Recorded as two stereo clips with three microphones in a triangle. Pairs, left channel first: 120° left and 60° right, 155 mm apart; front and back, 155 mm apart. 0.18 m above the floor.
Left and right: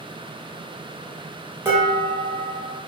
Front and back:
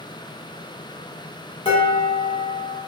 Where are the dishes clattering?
Straight ahead, 1.0 m.